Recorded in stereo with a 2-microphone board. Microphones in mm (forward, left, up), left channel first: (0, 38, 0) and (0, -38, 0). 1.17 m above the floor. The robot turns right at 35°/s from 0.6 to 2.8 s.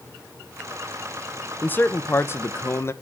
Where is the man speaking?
45° left, 0.7 m; by 2.9 s 85° left, 0.7 m.